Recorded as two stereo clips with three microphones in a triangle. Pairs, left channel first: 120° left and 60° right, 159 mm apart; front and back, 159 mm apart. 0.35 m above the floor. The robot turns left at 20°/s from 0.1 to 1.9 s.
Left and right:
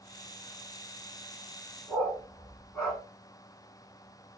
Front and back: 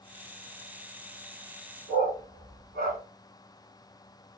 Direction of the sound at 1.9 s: 170° right.